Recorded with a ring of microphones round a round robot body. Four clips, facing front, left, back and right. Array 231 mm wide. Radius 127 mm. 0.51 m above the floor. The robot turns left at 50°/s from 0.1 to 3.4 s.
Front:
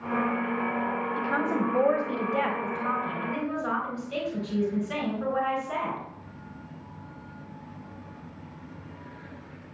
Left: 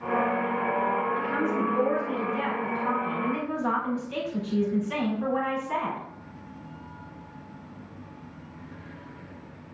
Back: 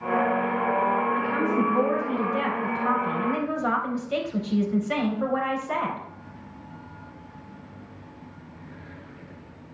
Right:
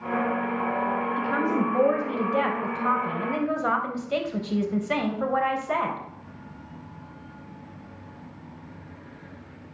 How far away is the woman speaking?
About 3.5 m.